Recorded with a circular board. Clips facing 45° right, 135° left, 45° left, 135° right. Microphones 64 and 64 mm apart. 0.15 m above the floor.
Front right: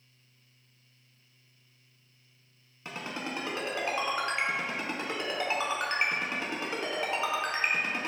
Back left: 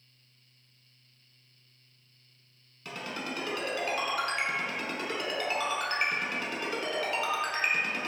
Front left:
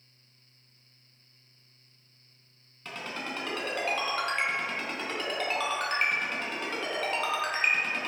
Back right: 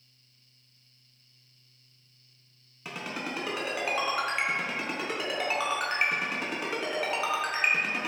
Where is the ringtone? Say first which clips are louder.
Even, back right 1 dB; 75° right, 0.6 m.